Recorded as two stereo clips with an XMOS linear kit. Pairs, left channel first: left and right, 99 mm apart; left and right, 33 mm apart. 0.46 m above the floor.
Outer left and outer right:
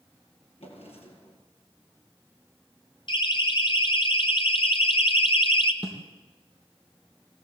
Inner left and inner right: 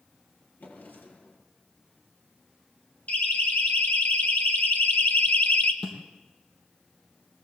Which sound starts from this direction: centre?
A snare drum, at 5.8 s.